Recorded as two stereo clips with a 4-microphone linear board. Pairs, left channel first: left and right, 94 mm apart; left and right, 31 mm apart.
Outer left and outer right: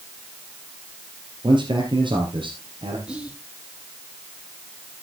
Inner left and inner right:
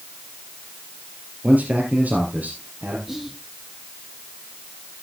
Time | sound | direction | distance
1.4 | a man speaking | 55° right (ahead or behind) | 3.5 m
3.1 | whispering | 10° right (ahead or behind) | 1.4 m